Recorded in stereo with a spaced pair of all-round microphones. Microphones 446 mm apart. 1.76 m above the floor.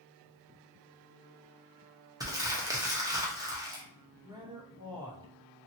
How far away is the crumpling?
About 0.7 m.